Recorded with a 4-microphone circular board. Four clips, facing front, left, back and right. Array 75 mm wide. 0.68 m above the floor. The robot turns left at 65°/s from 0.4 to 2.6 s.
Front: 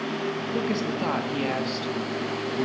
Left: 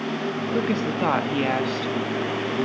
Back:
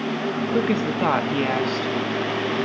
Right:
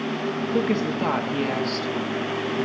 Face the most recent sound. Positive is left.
turn(degrees=55)